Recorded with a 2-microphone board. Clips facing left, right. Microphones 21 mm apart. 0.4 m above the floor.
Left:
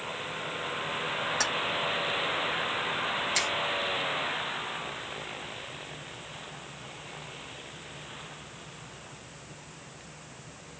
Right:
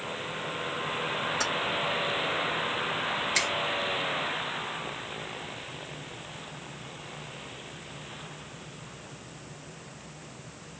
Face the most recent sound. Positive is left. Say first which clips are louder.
# right 2 dB
turn(degrees=-10)  # may be behind; listen again after turning